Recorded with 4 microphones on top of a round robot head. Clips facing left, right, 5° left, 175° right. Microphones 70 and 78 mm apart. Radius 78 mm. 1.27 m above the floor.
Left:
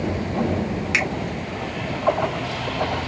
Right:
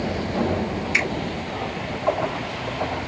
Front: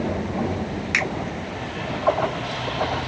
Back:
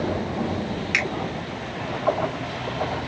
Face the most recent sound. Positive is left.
turn(degrees=70)